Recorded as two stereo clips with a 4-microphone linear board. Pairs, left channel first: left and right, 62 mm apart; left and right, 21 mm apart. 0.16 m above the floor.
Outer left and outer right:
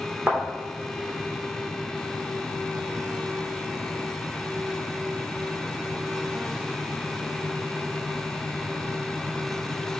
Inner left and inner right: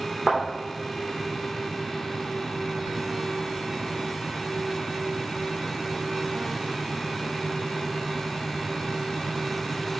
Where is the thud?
15° right (ahead or behind), 3.5 m.